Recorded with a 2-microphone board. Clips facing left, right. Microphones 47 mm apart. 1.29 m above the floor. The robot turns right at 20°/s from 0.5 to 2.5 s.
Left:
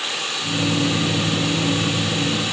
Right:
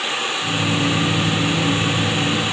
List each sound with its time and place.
Only background noise.